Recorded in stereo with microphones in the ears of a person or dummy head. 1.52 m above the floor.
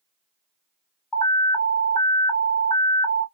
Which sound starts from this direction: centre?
An alarm, at 1.1 s.